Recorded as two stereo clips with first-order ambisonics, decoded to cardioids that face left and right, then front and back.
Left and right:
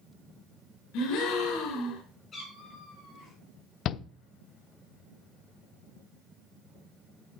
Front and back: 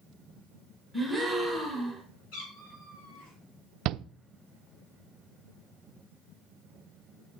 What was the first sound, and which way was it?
A gasp, 80° left.